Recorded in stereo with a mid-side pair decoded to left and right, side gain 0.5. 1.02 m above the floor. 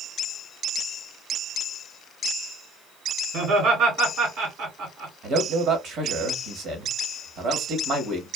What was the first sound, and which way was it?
Laughter, 70° right.